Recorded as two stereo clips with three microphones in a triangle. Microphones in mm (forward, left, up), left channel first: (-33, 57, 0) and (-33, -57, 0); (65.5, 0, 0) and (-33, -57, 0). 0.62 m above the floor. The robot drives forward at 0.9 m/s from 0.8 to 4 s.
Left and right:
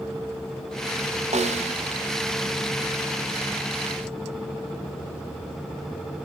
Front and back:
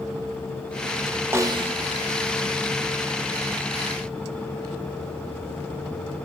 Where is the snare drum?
80° right, 0.6 m; by 1.8 s 120° right, 0.6 m.